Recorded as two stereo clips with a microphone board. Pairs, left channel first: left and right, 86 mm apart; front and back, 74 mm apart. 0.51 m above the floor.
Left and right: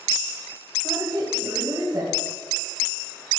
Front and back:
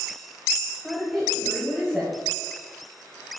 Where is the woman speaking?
90° right, 1.8 m.